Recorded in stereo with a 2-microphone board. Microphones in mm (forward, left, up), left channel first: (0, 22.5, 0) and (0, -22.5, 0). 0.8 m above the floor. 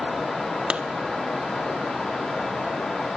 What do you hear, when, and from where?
0.7 s a clap: 25° right (ahead or behind), 1.4 m